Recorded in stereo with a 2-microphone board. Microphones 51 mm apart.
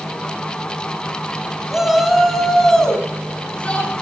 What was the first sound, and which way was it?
A shout, 10° right (ahead or behind).